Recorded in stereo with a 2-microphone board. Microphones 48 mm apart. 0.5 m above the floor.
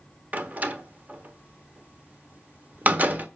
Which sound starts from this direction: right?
A door slam, at 0.3 s.